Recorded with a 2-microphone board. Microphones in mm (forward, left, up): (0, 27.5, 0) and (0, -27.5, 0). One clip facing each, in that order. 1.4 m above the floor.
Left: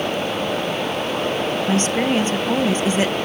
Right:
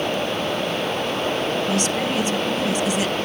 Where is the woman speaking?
35° left (ahead or behind), 1.1 m.